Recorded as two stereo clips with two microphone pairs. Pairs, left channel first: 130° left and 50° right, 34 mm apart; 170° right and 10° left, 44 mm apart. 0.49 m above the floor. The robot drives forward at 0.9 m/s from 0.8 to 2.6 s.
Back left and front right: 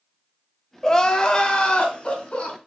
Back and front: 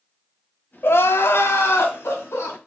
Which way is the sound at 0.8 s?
150° right.